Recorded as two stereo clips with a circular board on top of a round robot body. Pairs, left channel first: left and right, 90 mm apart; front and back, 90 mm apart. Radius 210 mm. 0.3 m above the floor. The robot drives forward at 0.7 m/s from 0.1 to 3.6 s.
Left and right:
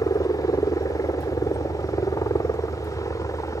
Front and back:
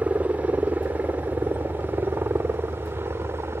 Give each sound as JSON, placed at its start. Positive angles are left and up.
{"t": 0.0, "sound": "a helicopter", "azimuth_deg": 115}